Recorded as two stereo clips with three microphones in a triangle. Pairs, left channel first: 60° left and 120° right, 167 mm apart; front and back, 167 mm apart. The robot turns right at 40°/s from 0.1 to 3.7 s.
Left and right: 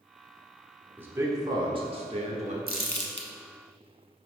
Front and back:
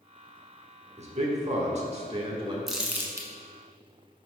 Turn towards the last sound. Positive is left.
turn(degrees=130)